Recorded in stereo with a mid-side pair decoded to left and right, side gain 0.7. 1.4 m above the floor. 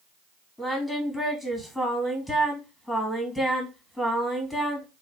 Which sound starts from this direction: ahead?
Singing, at 0.6 s.